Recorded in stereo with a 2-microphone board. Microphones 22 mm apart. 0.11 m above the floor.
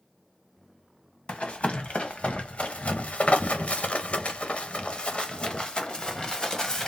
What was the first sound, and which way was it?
Running footsteps, 60° left (ahead or behind).